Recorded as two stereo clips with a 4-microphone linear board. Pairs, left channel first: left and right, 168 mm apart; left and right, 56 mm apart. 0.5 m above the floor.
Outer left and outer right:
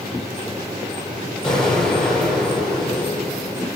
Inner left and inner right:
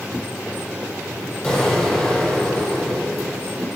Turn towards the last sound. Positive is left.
turn(degrees=5)  # may be behind; listen again after turning